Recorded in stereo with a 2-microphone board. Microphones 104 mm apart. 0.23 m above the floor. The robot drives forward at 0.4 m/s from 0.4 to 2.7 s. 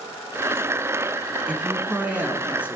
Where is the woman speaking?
15° right (ahead or behind), 1.8 m; by 2.8 s 10° right (ahead or behind), 2 m.